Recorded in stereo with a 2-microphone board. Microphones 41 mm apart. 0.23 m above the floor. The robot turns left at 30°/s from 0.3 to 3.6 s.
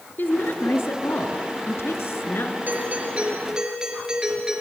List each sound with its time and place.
0.2 s a woman speaking: 130° left, 3 m; by 2.6 s 60° left, 3 m
2.7 s a doorbell: 45° right (ahead or behind), 4.5 m; by 4.6 s 15° right (ahead or behind), 4.5 m